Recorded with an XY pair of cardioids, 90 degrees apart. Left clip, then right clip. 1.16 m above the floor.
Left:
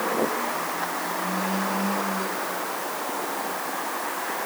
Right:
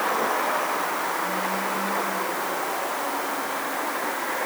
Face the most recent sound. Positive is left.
No sound to turn to.